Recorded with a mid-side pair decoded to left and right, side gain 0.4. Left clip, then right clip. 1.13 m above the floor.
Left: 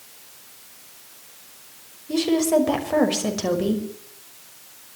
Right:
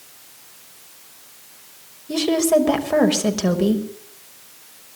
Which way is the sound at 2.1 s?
20° right.